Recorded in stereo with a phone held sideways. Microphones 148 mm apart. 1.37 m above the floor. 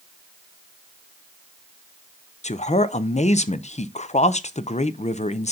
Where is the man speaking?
50° left (ahead or behind), 0.5 m.